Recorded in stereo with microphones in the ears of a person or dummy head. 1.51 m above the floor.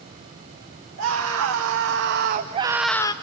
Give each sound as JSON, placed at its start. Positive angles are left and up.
{"t": 1.0, "sound": "a scream", "side_deg": -80, "distance_m": 1.9}